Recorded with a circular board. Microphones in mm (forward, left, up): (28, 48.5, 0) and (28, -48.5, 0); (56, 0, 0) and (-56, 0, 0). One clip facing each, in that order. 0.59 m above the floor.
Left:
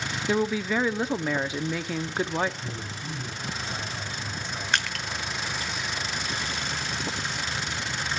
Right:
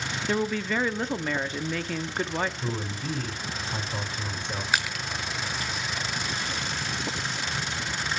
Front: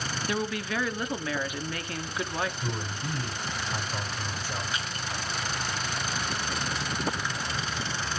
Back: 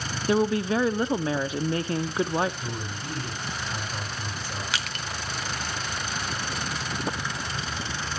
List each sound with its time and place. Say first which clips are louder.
0.3 s a woman speaking: left 2 dB, back 9 dB; 165° left, 0.7 m
2.6 s a man speaking: right 5 dB, front 1 dB; 80° right, 5.5 m
4.7 s crushing: even, back 1 dB; 175° right, 1.0 m